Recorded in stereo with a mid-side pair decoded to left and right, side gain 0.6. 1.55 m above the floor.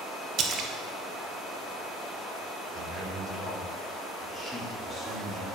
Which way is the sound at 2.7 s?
Straight ahead.